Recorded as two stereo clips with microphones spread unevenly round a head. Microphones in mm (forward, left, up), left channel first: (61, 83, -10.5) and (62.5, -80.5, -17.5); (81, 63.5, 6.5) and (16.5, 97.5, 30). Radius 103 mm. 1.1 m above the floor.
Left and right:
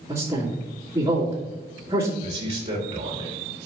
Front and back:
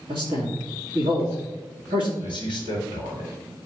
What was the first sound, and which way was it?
A man speaking, 165° right.